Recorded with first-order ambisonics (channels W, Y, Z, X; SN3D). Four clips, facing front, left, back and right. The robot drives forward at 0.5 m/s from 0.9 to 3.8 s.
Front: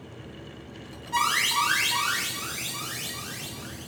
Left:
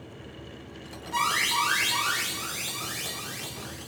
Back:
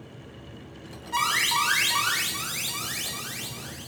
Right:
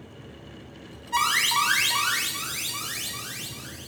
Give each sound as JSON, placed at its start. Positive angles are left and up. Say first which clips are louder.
{"t": 1.1, "sound": "an alarm", "louder": "right 3 dB, even", "azimuth_deg": -90, "distance_m": 1.1}